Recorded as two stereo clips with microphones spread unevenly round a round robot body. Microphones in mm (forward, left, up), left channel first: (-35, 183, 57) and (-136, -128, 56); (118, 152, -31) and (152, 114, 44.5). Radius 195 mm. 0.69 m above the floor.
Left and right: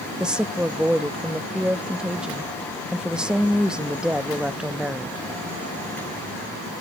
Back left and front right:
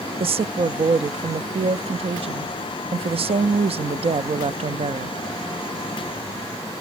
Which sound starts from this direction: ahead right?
A woman speaking, at 0.2 s.